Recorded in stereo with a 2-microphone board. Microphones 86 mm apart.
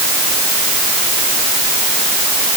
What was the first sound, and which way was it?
Only background noise.